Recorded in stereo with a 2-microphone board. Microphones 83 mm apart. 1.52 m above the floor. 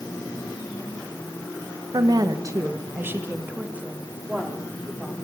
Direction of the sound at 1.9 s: 60° right (ahead or behind).